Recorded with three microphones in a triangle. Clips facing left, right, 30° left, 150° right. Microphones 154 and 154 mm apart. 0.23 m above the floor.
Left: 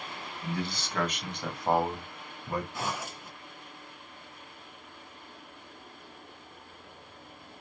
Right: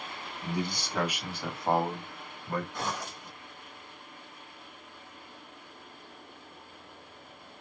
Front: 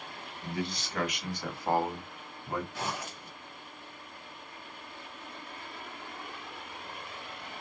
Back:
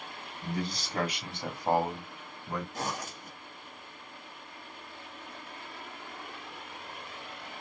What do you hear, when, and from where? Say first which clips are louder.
0.4 s a man speaking: right 1 dB, back 1 dB; 150° right, 1.7 m; by 2.6 s 90° left, 1.3 m
2.7 s a zipper: even, back 1 dB; 170° left, 1.7 m